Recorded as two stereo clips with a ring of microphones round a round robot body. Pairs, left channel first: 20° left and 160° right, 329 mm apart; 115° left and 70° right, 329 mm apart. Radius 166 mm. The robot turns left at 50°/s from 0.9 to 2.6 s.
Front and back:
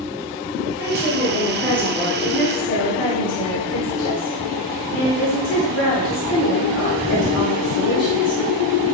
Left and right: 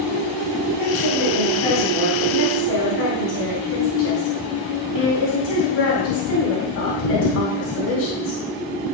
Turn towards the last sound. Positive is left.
turn(degrees=65)